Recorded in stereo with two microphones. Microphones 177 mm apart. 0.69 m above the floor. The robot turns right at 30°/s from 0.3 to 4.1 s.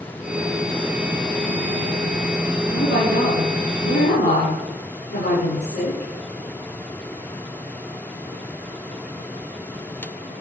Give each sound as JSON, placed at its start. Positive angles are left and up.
{"t": 2.7, "sound": "a woman speaking", "azimuth_deg": 65, "distance_m": 8.0}